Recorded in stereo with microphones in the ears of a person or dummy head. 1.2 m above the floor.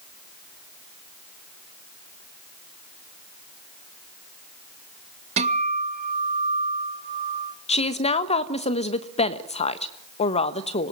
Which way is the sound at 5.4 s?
30° right (ahead or behind).